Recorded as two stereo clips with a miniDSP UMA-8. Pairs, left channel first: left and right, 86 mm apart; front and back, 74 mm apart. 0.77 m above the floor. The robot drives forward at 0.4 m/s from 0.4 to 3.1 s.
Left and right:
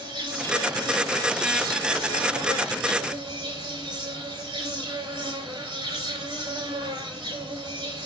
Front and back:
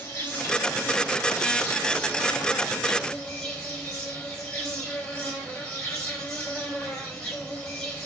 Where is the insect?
65° right, 4.5 m; by 8.1 s 75° right, 4 m.